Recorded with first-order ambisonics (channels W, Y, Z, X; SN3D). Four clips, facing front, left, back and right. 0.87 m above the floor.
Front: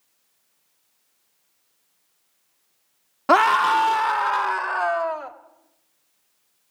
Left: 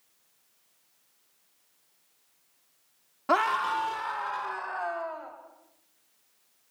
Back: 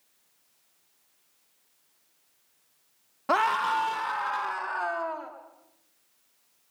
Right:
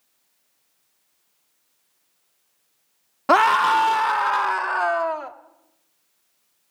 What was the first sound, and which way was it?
A scream, 50° right.